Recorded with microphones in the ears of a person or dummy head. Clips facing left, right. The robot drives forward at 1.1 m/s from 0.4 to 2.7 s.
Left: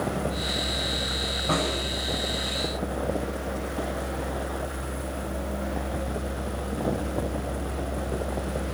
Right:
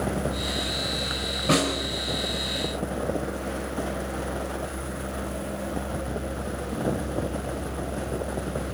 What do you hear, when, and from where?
1.5 s a snare drum: 55° right (ahead or behind), 5 m; by 1.8 s 60° right (ahead or behind), 5 m